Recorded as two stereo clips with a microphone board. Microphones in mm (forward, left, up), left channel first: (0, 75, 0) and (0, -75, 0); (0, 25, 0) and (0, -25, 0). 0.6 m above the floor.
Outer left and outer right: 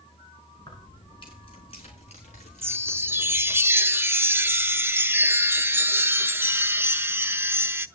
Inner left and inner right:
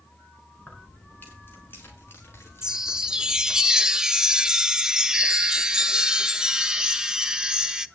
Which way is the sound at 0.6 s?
30° left (ahead or behind).